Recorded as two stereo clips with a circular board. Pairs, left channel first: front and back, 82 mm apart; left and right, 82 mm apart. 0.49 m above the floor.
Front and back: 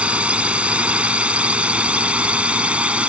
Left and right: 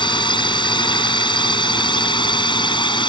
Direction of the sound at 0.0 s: 105° left.